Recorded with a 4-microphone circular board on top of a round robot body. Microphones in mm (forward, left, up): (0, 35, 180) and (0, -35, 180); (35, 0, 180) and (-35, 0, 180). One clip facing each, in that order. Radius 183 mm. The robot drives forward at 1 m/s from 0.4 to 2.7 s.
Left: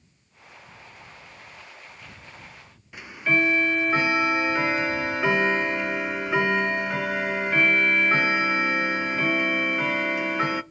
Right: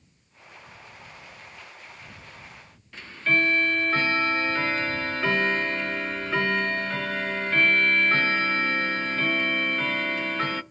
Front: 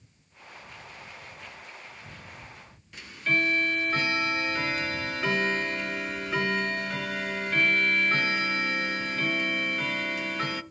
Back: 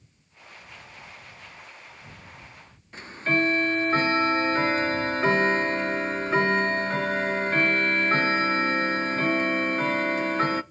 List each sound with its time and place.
2.9 s ticking: 160° left, 0.6 m